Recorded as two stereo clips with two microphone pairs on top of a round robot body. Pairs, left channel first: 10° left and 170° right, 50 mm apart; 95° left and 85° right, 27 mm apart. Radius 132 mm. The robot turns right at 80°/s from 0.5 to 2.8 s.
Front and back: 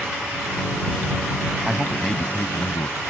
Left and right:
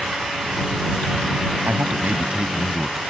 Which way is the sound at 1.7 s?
95° right.